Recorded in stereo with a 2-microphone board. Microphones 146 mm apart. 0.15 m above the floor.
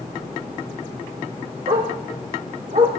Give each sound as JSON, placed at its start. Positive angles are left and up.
{"t": 1.7, "sound": "a dog barking", "side_deg": -65, "distance_m": 3.5}